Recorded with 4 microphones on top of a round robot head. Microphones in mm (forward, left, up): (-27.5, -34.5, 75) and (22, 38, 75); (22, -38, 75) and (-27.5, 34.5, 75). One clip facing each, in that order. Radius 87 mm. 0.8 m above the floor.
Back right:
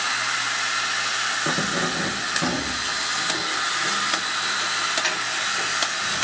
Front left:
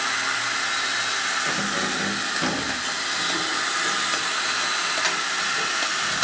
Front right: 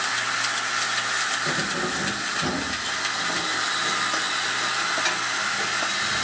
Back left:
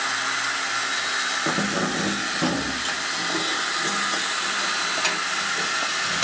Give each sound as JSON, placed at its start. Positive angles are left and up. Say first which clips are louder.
{"t": 1.5, "sound": "keys jangling", "louder": "back right 1 dB, back left 2 dB", "azimuth_deg": 180, "distance_m": 0.6}